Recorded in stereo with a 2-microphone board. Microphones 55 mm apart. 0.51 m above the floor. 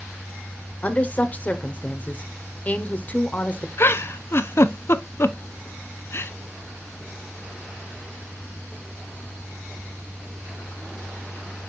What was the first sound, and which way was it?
A woman speaking, 30° left (ahead or behind).